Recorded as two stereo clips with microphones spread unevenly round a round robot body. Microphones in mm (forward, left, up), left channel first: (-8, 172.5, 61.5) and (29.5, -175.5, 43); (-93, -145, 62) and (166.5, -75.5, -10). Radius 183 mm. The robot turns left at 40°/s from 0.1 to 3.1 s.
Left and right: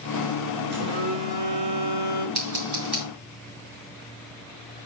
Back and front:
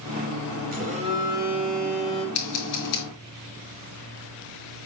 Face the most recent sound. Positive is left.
turn(degrees=-175)